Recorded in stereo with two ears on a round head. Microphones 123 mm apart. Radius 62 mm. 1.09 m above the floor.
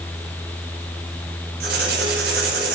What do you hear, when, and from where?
1.6 s writing: 80° right, 4.5 m